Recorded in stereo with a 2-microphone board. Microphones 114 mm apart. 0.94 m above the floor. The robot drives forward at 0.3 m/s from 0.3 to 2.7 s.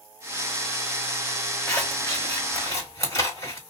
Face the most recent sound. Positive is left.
turn(degrees=25)  # may be behind; listen again after turning